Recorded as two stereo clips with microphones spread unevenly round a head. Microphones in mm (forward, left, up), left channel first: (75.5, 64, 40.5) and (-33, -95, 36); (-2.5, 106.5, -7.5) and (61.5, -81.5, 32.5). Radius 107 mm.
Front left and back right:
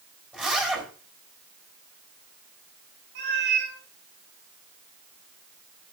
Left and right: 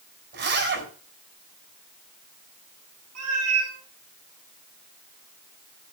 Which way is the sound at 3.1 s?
90° right.